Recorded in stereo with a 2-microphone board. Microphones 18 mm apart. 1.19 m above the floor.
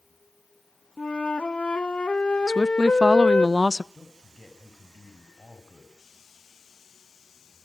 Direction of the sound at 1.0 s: 75° left (ahead or behind).